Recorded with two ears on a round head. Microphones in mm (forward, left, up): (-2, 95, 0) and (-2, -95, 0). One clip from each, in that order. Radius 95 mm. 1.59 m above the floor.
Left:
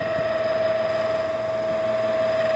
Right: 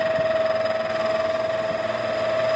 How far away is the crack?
No crack in this recording.